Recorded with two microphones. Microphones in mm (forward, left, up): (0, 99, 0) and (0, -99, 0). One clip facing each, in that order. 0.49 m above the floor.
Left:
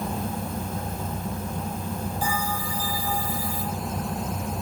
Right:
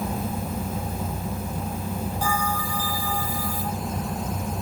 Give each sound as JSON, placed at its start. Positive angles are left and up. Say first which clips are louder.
{"t": 2.2, "sound": "a bell", "louder": "right 2 dB", "side_deg": -70, "distance_m": 8.0}